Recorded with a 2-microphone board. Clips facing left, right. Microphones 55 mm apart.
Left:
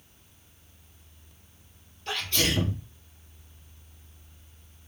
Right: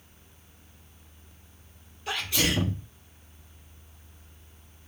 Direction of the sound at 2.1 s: 10° right (ahead or behind).